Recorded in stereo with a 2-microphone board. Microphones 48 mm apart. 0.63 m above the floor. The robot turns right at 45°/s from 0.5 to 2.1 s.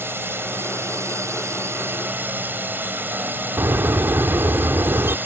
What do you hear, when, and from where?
0.0 s a drone: 120° right; by 5.3 s 50° right
3.6 s a bird: 70° right (ahead or behind)